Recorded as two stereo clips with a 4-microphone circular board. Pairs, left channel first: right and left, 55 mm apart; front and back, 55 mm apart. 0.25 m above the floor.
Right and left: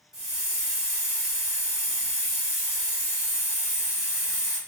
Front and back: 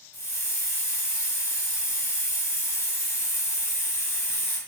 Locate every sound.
0.1 s a hiss: 10° left, 1.1 m